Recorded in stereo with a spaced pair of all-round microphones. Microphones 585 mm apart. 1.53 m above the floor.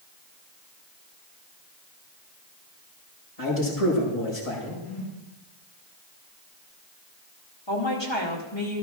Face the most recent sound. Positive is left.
turn(degrees=50)  # may be behind; listen again after turning